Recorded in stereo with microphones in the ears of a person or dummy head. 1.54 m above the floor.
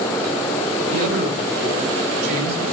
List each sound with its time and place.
0.9 s a man speaking: 65° right (ahead or behind), 6 m